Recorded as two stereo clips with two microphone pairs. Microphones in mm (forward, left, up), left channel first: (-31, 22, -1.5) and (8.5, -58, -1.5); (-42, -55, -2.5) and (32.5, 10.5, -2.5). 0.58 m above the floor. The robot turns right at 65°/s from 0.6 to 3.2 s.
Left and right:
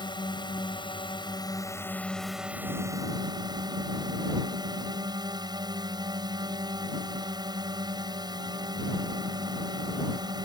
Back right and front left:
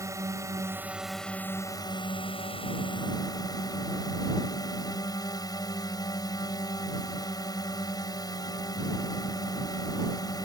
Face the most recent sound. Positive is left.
turn(degrees=-95)